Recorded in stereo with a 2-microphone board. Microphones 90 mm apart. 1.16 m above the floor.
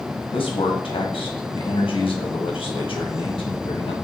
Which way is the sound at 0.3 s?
75° left (ahead or behind).